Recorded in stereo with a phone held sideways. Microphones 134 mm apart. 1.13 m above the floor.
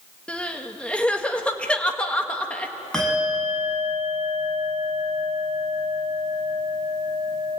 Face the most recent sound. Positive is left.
turn(degrees=5)  # may be behind; listen again after turning